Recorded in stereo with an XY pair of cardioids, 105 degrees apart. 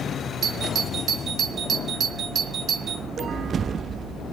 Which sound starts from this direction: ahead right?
A doorbell, at 0.4 s.